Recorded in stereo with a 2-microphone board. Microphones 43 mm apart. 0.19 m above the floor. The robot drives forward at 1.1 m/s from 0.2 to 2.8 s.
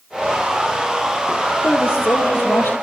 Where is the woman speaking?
65° left (ahead or behind), 5.5 m; by 2.8 s 75° left (ahead or behind), 5.5 m.